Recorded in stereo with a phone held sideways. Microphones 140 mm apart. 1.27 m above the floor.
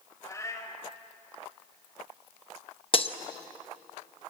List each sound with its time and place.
0.2 s a cat meowing: 25° left (ahead or behind), 3.5 m
2.9 s breaking glass: 40° left (ahead or behind), 0.9 m